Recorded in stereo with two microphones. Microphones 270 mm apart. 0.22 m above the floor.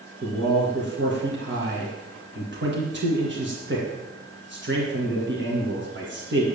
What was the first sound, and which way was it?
A man speaking, 45° right (ahead or behind).